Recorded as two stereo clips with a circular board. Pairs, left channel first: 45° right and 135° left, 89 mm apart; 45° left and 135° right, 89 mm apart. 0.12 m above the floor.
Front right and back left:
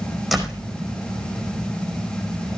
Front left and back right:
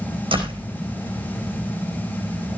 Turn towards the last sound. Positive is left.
turn(degrees=-135)